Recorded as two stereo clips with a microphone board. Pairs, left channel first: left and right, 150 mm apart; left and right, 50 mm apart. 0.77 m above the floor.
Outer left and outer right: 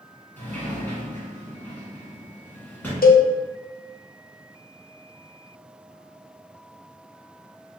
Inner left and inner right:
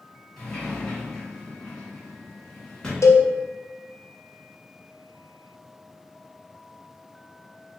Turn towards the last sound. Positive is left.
turn(degrees=75)  # may be behind; listen again after turning